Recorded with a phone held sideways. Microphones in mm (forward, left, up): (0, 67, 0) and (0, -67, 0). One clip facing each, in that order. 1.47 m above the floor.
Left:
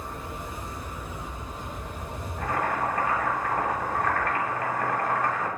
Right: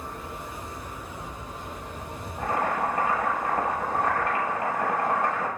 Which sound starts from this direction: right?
Boiling, at 2.4 s.